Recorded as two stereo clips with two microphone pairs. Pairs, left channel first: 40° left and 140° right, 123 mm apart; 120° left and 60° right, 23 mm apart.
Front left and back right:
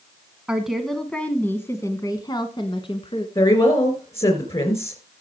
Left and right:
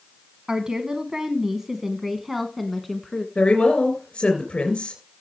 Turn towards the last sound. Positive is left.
turn(degrees=75)